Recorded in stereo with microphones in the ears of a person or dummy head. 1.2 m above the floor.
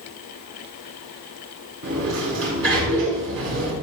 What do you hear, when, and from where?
1.8 s a sliding door: 75° right (ahead or behind), 6 m